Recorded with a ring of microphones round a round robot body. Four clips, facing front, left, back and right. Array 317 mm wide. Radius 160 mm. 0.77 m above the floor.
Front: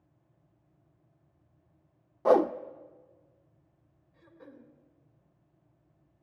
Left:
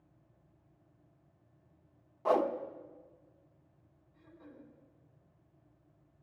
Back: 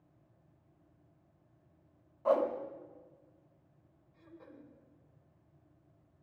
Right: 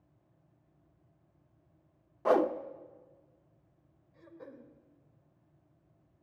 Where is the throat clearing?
75° right, 2.0 m.